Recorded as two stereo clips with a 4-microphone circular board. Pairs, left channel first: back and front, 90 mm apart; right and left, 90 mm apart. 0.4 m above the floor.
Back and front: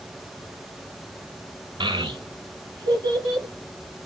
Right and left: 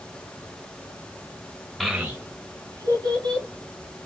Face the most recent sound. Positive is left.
turn(degrees=45)